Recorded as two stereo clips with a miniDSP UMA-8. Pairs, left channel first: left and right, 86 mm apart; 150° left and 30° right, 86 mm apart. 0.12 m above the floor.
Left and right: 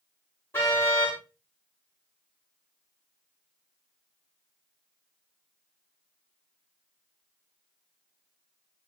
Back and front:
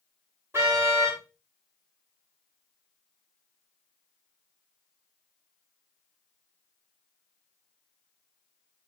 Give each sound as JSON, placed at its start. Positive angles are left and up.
{"t": 0.5, "sound": "a car horn", "azimuth_deg": 30, "distance_m": 9.0}